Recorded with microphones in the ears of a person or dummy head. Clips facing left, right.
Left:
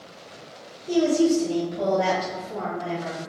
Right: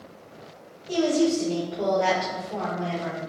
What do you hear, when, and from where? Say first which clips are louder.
0.9 s a woman speaking: left 2 dB; 80° left, 2.5 m; by 3.2 s 35° left (ahead or behind), 4 m